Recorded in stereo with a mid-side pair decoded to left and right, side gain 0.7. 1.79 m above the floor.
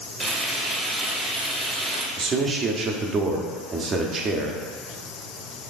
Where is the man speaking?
35° right, 0.8 m.